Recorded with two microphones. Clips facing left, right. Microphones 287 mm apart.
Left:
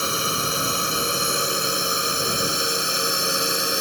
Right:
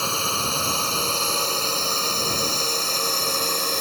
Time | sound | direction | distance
0.0 | a drone | 20° left (ahead or behind) | ?